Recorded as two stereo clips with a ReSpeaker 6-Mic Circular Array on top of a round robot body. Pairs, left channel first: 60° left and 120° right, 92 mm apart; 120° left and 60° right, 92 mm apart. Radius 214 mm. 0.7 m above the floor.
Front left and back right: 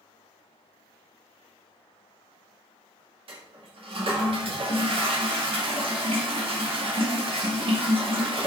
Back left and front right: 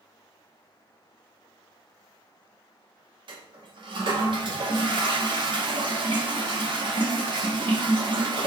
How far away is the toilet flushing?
About 0.9 m.